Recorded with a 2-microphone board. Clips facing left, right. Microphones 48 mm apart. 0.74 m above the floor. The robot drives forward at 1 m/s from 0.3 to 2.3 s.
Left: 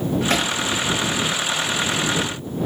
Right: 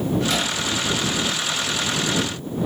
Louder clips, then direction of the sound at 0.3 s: Left 3 dB; 45° left (ahead or behind).